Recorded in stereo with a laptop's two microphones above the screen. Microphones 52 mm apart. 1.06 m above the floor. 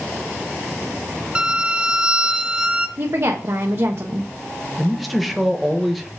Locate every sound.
1.4 s a violin: 25° right (ahead or behind), 1.2 m
3.0 s a woman speaking: 60° right (ahead or behind), 1.1 m
4.8 s a man speaking: centre (ahead or behind), 0.9 m